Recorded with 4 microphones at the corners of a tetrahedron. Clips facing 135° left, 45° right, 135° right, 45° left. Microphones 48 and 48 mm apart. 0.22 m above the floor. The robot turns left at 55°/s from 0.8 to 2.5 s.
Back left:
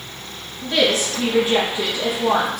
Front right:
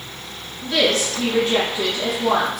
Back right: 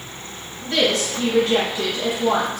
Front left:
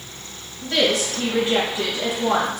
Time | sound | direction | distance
0.6 | a woman speaking | 125° left | 1.0 m